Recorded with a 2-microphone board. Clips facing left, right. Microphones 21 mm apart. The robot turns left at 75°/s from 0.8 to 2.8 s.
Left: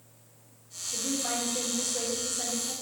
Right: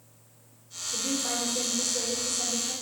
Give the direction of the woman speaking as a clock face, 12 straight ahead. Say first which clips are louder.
Right 1 dB; 6 o'clock.